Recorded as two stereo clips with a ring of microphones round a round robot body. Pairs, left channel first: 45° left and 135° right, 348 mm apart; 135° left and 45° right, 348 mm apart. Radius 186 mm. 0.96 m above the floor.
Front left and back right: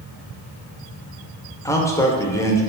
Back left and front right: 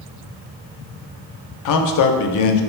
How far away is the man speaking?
About 0.5 m.